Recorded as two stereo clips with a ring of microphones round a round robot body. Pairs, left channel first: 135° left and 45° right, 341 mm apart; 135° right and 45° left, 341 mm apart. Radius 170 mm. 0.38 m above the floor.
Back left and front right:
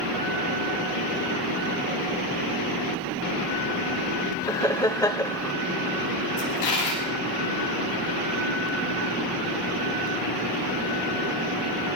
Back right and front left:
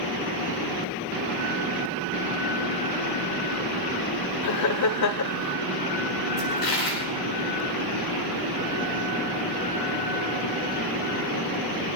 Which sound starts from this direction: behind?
A dropped coin, at 6.4 s.